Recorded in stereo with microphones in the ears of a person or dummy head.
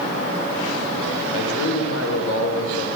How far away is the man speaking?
About 6 m.